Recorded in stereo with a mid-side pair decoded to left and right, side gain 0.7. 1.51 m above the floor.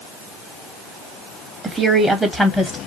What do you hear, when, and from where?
1.6 s a woman speaking: 15° right, 1.0 m; by 2.9 s 20° left, 1.2 m